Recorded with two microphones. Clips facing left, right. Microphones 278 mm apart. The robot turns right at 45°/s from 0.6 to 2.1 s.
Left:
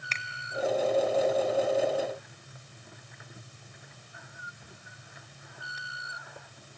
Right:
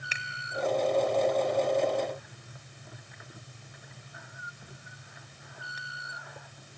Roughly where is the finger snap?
Centre.